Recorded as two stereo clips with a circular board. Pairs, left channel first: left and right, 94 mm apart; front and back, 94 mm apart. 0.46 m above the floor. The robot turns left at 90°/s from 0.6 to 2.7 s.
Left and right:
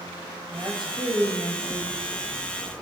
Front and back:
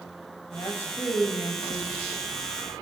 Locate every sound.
0.5 s a woman speaking: 45° right, 2 m; by 2.0 s 170° right, 2 m